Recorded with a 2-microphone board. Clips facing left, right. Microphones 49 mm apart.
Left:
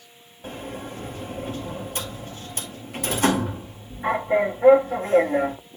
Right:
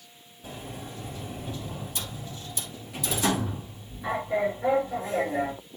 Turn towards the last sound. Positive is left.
turn(degrees=50)  # may be behind; listen again after turning